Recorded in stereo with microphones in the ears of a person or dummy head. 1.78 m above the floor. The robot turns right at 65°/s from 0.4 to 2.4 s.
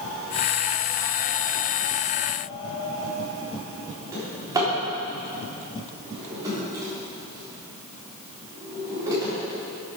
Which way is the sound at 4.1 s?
15° right (ahead or behind).